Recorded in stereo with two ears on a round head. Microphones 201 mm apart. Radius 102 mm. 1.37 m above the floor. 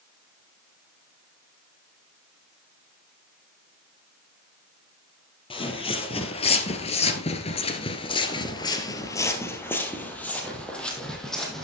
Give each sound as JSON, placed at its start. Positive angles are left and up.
{"t": 5.5, "sound": "footsteps", "side_deg": 25, "distance_m": 2.0}